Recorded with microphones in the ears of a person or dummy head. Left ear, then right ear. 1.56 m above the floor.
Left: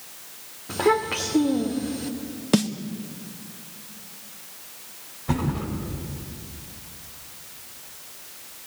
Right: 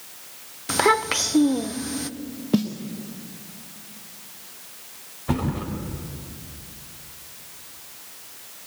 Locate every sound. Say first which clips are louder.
0.7 s a child speaking: right 2 dB; 65° right (ahead or behind), 0.8 m
2.5 s a snare drum: left 2 dB; 25° left (ahead or behind), 0.9 m
5.3 s a thud: right 1 dB; 15° right (ahead or behind), 4 m